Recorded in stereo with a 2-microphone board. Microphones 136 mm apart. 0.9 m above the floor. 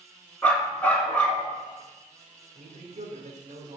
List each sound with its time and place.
0.4 s a dog barking: 10° left (ahead or behind), 2.5 m
2.5 s a man speaking: 75° right (ahead or behind), 2 m